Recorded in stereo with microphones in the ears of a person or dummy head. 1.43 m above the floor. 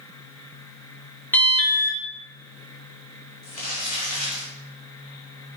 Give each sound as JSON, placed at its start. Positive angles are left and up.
{"t": 1.3, "sound": "an alarm", "side_deg": 10, "distance_m": 1.0}
{"t": 3.4, "sound": "crumpling", "side_deg": 45, "distance_m": 2.0}